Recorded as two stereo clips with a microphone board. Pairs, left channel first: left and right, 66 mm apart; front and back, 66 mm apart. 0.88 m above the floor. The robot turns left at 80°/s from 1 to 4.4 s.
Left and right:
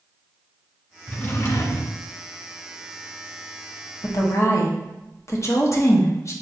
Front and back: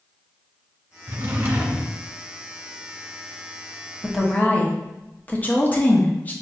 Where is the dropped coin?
No dropped coin in this recording.